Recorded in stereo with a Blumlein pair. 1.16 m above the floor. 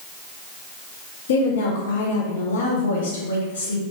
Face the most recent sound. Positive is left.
turn(degrees=60)